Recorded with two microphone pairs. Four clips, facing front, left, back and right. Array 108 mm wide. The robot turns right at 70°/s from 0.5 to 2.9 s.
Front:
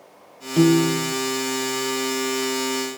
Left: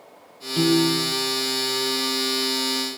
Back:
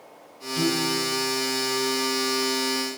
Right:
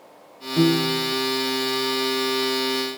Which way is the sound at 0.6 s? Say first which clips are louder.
Even, front 9 dB; 15° right.